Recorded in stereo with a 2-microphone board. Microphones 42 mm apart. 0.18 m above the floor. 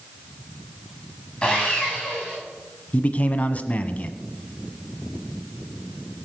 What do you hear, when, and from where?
1.4 s sawing: 15° left (ahead or behind), 7.5 m
2.9 s a man speaking: 35° left (ahead or behind), 1.2 m